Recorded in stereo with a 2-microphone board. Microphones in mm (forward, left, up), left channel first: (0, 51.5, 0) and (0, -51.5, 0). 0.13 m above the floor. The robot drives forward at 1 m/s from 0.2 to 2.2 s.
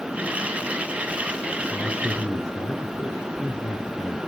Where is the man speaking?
25° left (ahead or behind), 1.3 m; by 4.2 s 30° left (ahead or behind), 1.2 m.